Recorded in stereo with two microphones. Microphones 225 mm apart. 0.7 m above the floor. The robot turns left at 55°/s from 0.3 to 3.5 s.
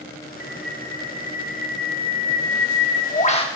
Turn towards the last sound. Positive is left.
turn(degrees=20)